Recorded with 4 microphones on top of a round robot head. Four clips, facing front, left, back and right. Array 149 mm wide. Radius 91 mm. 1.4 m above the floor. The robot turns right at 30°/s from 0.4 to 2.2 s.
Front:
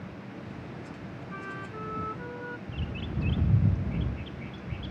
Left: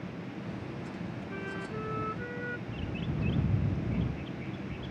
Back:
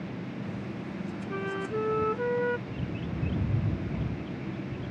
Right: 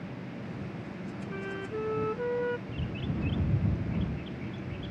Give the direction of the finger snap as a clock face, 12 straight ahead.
No finger snap in this recording.